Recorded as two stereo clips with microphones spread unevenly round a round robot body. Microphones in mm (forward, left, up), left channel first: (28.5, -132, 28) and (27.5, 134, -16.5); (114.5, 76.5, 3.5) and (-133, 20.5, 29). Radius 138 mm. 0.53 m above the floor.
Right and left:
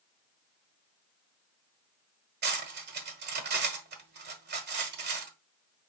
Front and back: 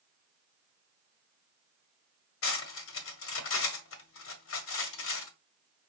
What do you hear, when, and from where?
2.4 s cutlery clinking: 45° left, 1.1 m